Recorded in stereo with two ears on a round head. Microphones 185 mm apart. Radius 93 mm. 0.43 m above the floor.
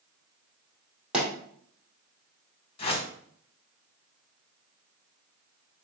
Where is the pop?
5° right (ahead or behind), 2.5 m.